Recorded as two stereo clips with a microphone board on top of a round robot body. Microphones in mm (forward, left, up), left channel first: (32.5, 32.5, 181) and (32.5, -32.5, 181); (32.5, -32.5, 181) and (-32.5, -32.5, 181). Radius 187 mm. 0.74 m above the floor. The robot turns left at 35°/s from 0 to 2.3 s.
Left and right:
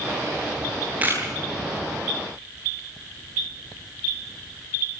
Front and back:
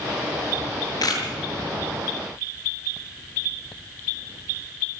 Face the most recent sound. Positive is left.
turn(degrees=-65)